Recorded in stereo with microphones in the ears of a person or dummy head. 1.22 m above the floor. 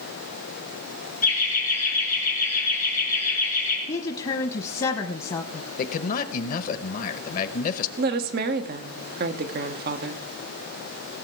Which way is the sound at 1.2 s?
40° left (ahead or behind).